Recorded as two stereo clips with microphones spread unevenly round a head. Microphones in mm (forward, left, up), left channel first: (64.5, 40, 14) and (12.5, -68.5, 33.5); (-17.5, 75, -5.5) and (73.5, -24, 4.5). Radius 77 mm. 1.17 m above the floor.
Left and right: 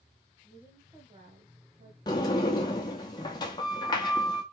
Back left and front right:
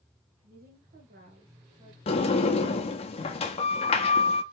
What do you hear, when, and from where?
0.4 s a woman speaking: 30° right, 1.6 m; by 2.0 s 130° right, 1.5 m
2.1 s a sliding door: 125° left, 0.6 m